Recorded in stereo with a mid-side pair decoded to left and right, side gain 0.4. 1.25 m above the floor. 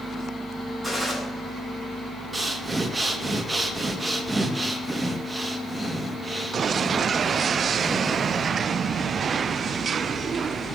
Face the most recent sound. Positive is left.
turn(degrees=-20)